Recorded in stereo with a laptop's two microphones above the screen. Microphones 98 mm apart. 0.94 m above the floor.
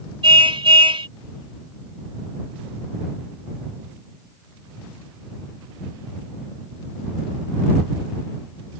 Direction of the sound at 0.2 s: 65° right (ahead or behind).